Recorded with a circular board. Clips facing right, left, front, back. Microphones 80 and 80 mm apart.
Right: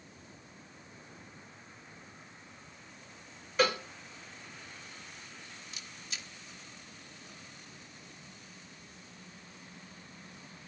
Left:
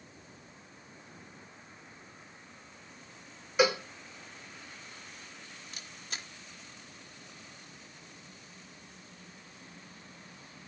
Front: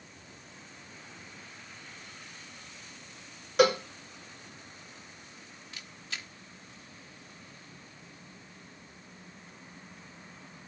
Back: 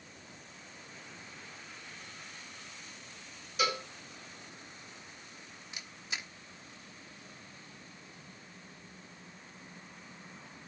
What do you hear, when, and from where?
3.6 s a cowbell: 10° left, 2.5 m
5.7 s a camera shutter: 115° left, 1.1 m